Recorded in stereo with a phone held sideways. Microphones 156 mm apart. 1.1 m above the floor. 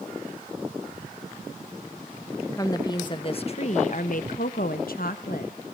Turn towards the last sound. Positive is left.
turn(degrees=65)  # may be behind; listen again after turning